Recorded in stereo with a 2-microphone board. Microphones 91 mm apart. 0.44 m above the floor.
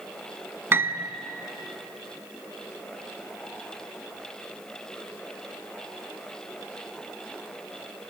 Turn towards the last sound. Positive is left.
turn(degrees=-25)  # may be behind; listen again after turning